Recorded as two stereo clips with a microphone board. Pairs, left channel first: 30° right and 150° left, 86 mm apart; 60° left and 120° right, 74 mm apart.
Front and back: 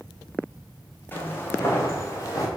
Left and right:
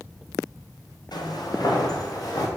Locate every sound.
1.1 s footsteps: 35° left, 3 m; by 2.5 s 20° left, 4 m